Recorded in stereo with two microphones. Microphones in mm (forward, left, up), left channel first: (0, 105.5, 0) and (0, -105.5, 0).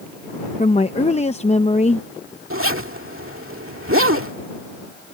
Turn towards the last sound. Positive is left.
turn(degrees=-85)